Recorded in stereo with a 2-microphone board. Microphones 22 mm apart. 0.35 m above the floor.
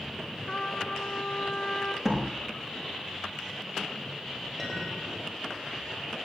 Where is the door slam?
10° right (ahead or behind), 4.5 m.